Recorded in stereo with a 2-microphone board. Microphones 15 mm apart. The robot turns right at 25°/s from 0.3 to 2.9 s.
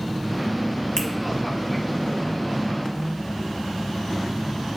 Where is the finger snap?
50° left (ahead or behind), 1.5 m; by 1.1 s 55° left (ahead or behind), 1.5 m.